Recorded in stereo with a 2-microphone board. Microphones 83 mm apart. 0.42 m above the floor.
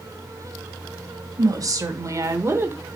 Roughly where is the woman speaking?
Right.